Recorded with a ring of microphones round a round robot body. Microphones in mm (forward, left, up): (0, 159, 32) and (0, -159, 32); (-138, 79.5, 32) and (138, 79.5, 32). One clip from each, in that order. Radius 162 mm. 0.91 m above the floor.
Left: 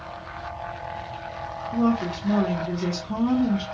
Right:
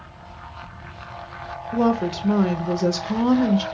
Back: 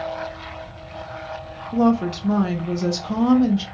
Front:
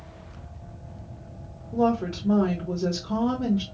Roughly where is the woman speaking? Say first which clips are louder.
Right 4 dB, back 4 dB; behind right.